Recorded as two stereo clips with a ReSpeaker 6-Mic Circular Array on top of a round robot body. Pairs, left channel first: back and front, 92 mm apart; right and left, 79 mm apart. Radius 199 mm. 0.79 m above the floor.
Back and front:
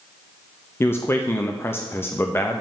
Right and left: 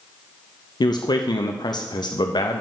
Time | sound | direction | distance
0.8 | a man speaking | 115° right | 0.8 m